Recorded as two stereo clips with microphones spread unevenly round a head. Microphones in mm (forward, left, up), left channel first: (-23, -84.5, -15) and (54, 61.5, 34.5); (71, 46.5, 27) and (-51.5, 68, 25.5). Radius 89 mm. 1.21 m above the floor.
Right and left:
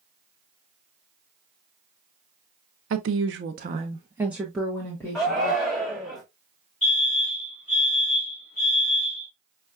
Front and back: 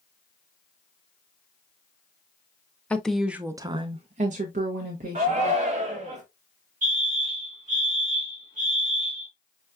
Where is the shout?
165° left, 1.0 m.